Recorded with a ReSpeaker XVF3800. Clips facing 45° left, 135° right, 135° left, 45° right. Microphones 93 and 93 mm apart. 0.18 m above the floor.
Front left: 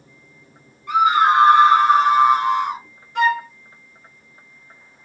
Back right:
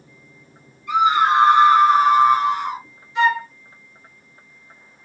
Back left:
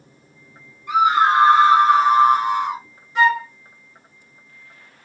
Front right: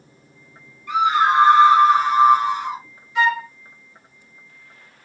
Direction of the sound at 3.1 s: 80° left.